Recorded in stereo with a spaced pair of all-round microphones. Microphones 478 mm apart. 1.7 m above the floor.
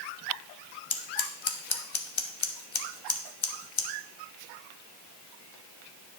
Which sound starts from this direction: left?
Scissors, at 0.9 s.